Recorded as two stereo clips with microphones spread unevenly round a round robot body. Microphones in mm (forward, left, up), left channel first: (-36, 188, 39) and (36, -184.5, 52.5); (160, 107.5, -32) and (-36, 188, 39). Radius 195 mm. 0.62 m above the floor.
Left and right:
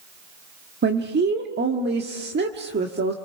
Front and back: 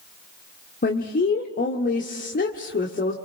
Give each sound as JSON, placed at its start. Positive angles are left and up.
{"t": 0.8, "sound": "a woman speaking", "azimuth_deg": -20, "distance_m": 1.7}